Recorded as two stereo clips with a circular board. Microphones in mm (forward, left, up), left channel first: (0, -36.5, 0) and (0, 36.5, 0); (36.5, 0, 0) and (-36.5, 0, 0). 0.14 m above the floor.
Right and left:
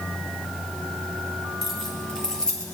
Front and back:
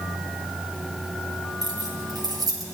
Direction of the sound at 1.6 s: 175° right.